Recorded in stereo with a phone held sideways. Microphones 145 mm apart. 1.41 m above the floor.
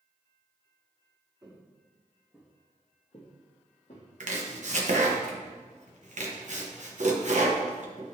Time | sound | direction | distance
1.4 | footsteps | 25° right (ahead or behind) | 1.8 m
4.2 | chopping | 60° right (ahead or behind) | 1.0 m